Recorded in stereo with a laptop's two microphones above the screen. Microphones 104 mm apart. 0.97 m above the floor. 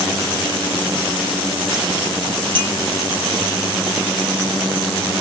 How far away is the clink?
About 2 m.